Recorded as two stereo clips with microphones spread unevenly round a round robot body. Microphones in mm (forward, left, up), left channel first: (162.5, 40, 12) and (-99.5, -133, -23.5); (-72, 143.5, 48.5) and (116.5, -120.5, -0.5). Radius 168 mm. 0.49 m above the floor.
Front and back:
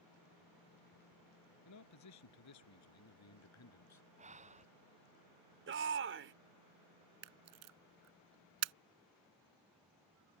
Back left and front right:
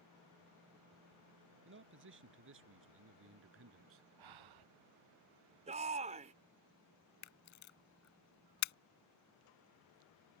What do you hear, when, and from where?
1.6 s a man speaking: straight ahead; by 4.1 s 5° right
4.2 s breathing: 80° right
5.7 s a shout: 115° right
7.2 s a camera shutter: 165° left